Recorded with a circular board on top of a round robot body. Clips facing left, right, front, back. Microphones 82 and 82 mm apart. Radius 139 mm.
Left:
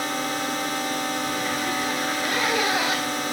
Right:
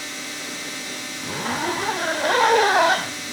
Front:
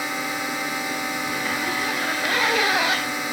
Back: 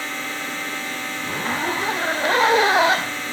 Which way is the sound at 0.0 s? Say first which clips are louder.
Left 8 dB, front 2 dB; 75° left.